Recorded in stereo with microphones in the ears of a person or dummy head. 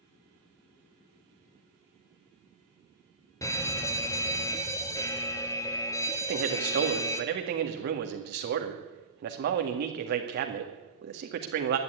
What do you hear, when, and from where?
3.4 s a fire alarm: 15° left (ahead or behind), 0.9 m
6.2 s a man speaking: 55° right (ahead or behind), 2.0 m